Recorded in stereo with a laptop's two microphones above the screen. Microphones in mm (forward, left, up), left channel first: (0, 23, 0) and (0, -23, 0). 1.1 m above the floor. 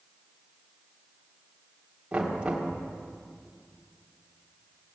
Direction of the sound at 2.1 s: 25° right (ahead or behind).